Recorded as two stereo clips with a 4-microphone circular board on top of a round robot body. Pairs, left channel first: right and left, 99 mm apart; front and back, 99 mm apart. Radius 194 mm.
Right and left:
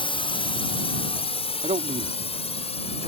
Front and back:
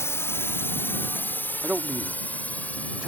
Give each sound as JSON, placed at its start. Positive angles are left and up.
{"t": 0.0, "sound": "a drone", "azimuth_deg": -65}
{"t": 1.6, "sound": "a man speaking", "azimuth_deg": 100}